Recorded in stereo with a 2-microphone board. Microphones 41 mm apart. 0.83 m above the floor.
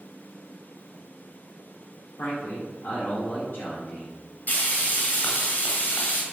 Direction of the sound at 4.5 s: 50° left (ahead or behind).